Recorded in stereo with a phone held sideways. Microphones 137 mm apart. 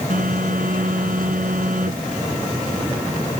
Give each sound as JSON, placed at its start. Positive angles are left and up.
{"t": 0.1, "sound": "a phone buzzing", "side_deg": -90}